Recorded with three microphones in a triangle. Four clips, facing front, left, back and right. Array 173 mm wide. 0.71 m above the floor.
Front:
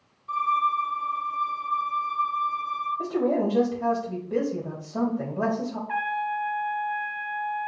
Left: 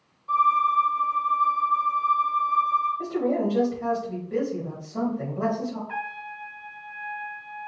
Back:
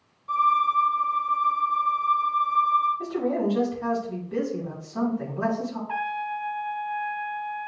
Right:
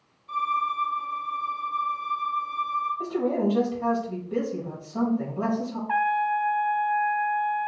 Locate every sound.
0.3 s a violin: 120° left, 2.5 m
3.0 s a man speaking: 10° left, 3 m
5.9 s a trumpet: 100° right, 0.7 m